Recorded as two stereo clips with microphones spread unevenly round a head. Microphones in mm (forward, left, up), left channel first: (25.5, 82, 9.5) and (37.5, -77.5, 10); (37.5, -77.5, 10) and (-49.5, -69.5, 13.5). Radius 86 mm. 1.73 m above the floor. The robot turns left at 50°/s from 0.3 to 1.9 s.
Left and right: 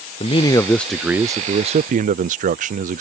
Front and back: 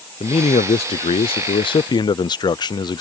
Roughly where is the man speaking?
Ahead left.